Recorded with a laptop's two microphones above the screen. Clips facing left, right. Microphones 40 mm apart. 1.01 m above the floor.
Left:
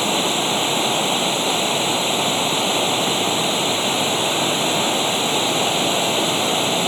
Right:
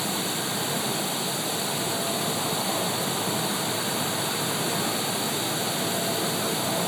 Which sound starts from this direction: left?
Running water, at 0.0 s.